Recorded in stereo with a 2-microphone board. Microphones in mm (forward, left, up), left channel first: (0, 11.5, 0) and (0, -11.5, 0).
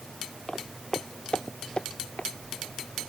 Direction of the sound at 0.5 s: 25° left (ahead or behind).